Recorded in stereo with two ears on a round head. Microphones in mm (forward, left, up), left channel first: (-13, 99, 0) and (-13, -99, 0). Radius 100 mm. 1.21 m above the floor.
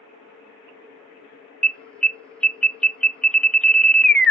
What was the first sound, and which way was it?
An alarm, 5° left (ahead or behind).